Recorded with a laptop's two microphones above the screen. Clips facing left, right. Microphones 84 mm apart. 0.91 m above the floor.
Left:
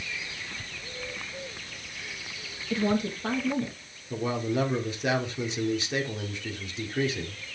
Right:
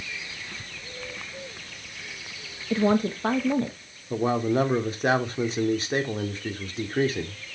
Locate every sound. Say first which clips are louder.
2.7 s a woman speaking: right 4 dB; 35° right (ahead or behind), 0.9 m; by 3.8 s 45° right (ahead or behind), 1.4 m
4.1 s a man speaking: right 5 dB; 40° right (ahead or behind), 1.9 m